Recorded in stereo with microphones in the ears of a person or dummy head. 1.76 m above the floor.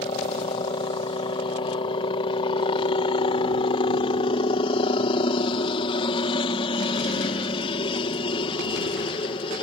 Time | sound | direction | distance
0.0 | a helicopter | 30° left (ahead or behind) | ?